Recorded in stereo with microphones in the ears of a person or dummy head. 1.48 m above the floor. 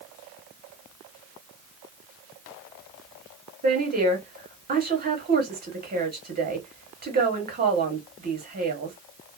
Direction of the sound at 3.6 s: 40° right (ahead or behind).